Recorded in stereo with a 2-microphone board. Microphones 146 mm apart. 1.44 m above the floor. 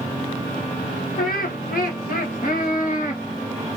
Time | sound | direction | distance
1.2 | laughter | 80° left | 1.2 m